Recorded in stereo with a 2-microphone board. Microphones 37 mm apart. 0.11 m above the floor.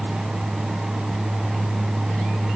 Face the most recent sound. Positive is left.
No sound to turn to.